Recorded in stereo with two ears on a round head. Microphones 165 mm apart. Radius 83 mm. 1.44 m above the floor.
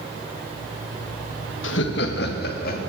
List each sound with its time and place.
1.6 s laughter: 80° left, 1.4 m; by 2.8 s 60° left (ahead or behind), 3 m